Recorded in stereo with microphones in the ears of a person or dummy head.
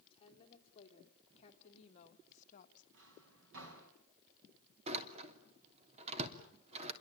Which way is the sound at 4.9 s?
35° right (ahead or behind).